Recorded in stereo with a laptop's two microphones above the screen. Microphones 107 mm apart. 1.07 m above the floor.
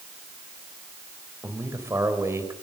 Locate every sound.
1.4 s a man speaking: 25° right (ahead or behind), 4 m